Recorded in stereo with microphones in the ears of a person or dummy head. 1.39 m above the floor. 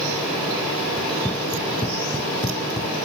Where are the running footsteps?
5° left (ahead or behind); by 2.9 s 30° left (ahead or behind).